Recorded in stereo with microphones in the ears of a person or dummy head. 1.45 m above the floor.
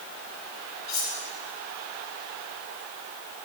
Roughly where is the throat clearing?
No throat clearing in this recording.